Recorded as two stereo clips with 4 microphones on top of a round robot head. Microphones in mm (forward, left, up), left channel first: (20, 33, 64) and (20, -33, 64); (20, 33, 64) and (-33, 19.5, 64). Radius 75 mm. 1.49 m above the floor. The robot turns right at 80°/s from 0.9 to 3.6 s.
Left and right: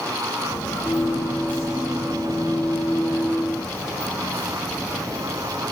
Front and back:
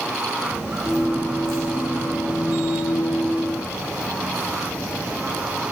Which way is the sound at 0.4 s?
115° left.